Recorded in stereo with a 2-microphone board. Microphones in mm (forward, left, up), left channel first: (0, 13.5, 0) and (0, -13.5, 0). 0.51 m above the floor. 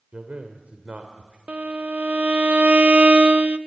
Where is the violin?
65° right (ahead or behind), 0.6 m.